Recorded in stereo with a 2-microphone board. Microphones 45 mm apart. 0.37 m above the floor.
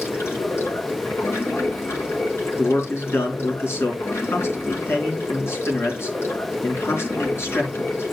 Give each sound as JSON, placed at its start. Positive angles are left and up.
{"t": 0.0, "sound": "running water", "side_deg": 70, "distance_m": 3.5}
{"t": 2.6, "sound": "a man speaking", "side_deg": 65, "distance_m": 3.5}